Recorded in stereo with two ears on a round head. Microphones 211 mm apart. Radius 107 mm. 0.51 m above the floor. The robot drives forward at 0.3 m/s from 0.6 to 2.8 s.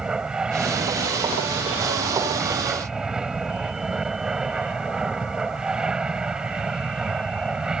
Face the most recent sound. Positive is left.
turn(degrees=-5)  # may be behind; listen again after turning